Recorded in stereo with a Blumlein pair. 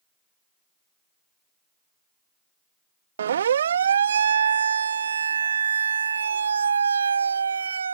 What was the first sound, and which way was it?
A siren, 65° right.